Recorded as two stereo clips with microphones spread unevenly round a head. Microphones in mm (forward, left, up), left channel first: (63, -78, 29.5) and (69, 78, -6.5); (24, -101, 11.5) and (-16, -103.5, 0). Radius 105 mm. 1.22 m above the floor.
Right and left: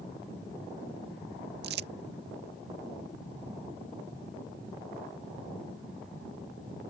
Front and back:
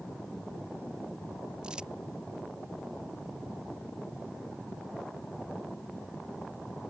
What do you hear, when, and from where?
1.6 s crumpling: 95° left